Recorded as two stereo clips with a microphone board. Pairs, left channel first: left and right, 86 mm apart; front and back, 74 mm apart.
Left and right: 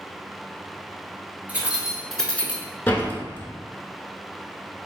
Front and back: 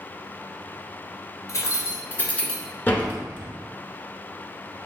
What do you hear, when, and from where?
1.5 s keys jangling: 25° right, 1.2 m; by 2.6 s 80° left, 0.9 m
2.9 s a door slam: 45° left, 0.9 m